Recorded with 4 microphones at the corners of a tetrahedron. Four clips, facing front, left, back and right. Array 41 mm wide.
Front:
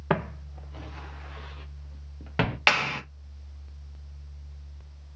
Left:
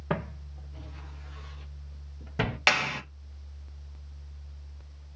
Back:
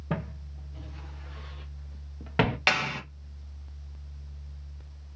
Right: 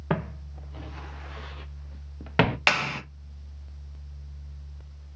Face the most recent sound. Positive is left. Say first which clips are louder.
# right 1 dB, front 6 dB
turn(degrees=-15)